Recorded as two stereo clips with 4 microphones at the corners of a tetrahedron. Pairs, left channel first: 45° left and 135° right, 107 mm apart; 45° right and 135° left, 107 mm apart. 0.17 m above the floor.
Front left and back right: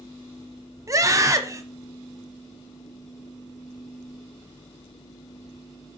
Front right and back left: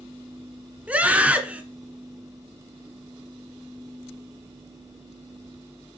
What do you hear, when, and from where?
0.9 s a scream: 160° right, 1.2 m